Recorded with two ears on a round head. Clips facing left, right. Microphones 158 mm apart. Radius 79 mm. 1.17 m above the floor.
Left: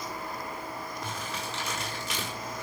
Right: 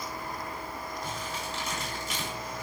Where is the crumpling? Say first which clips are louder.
Even; 55° left (ahead or behind), 6 m.